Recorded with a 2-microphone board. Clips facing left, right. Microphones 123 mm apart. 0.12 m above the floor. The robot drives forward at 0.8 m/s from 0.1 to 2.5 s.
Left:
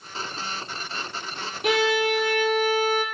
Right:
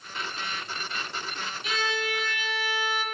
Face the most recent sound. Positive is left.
turn(degrees=50)  # may be behind; listen again after turning